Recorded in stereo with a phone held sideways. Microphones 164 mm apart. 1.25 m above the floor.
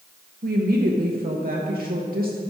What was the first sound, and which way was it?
A woman speaking, 65° right (ahead or behind).